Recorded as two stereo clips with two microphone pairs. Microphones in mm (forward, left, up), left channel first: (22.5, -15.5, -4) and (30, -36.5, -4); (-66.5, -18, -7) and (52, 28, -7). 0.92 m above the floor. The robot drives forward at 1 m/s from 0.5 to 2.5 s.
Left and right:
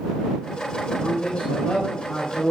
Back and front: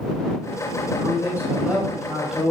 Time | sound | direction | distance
1.0 | a man speaking | 90° left | 4.5 m